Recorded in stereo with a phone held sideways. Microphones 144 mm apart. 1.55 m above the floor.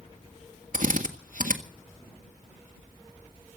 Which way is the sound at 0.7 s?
65° right (ahead or behind).